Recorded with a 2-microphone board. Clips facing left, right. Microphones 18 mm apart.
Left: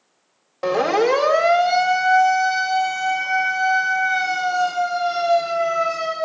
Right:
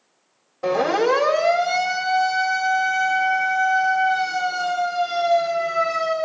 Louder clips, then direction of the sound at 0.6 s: Left 1 dB; 45° left (ahead or behind).